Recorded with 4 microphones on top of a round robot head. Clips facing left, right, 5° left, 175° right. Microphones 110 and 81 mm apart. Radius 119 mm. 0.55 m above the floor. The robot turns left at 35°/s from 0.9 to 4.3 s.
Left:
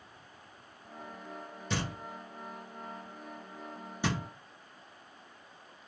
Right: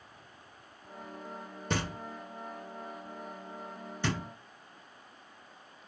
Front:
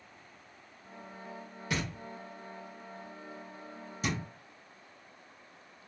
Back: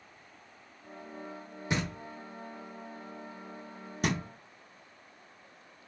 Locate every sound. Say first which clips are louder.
1.7 s knocking: right 2 dB, back 2 dB; 110° right, 0.9 m; by 4.2 s 160° left, 0.9 m